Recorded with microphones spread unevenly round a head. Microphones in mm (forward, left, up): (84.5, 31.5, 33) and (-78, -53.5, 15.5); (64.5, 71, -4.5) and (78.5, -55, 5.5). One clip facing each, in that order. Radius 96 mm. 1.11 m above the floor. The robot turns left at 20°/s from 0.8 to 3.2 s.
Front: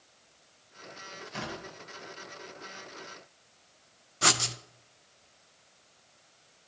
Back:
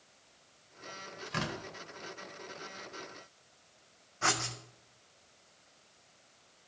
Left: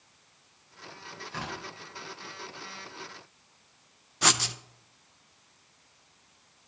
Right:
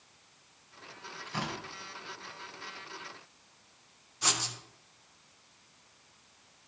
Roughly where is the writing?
Left.